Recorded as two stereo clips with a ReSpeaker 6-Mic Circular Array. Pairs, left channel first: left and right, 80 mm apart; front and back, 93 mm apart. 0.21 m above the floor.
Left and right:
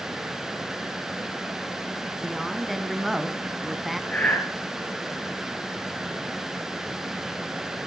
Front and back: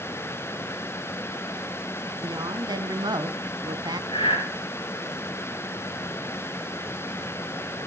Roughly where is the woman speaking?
Behind.